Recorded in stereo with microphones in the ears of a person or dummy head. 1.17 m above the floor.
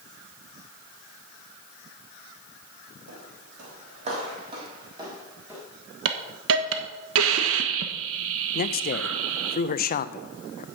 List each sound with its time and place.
3.1 s footsteps: 60° right (ahead or behind), 2.5 m; by 5.6 s 15° right (ahead or behind), 3 m
6.0 s a hiss: 70° right (ahead or behind), 1.2 m
8.6 s a man speaking: 40° left (ahead or behind), 0.5 m